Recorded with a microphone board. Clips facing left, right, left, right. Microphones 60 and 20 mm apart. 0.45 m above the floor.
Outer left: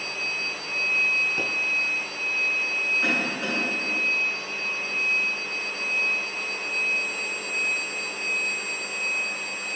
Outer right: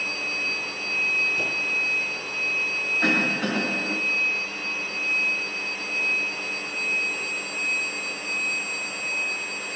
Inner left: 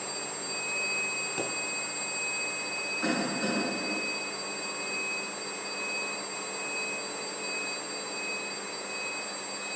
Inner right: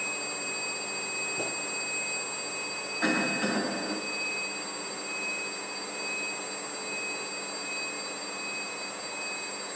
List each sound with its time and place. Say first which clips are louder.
1.4 s a pop: outer right 1 dB, inner right 1 dB; 55° left (ahead or behind), 3.5 m
3.0 s a cough: outer right 3 dB, inner right 4 dB; 70° right (ahead or behind), 4 m